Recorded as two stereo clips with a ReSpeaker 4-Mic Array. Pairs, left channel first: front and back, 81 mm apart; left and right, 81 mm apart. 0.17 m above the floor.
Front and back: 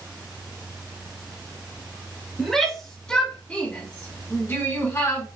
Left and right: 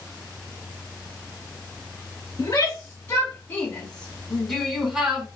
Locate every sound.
2.4 s a shout: 85° left, 1.6 m; by 5.3 s 20° right, 1.5 m